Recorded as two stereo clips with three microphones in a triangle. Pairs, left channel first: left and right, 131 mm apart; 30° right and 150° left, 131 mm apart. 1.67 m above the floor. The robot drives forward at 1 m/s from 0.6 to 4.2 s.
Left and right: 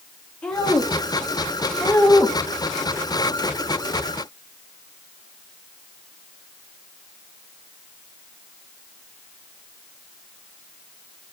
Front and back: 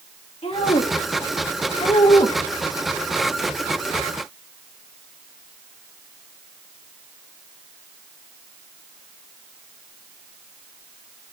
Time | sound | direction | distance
0.4 | a woman speaking | 5° left | 3 m